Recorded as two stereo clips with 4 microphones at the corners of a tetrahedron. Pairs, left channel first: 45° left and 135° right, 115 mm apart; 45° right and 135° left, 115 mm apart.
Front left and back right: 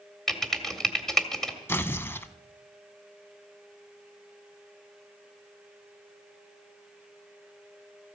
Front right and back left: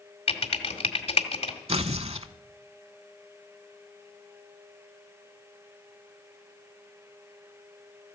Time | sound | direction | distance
0.3 | typing on a keyboard | 40° right | 1.8 m
1.7 | tearing paper | 115° left | 0.7 m